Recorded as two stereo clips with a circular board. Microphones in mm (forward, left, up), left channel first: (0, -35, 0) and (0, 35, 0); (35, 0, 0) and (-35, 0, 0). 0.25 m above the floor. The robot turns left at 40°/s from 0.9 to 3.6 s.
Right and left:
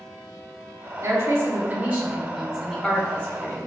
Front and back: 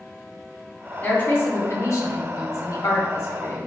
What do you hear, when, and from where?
1.0 s a woman speaking: 60° left, 1.5 m; by 3.7 s 40° right, 1.5 m